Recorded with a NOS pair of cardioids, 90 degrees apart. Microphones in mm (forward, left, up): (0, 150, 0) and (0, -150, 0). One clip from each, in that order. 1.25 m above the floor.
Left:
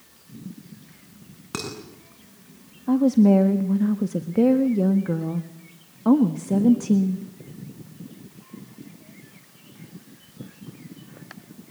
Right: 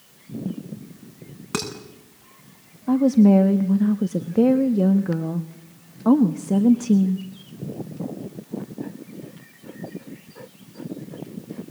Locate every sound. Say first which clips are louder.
1.5 s dishes clattering: right 4 dB; 30° right, 8 m
2.9 s a woman speaking: right 1 dB; 5° right, 1.4 m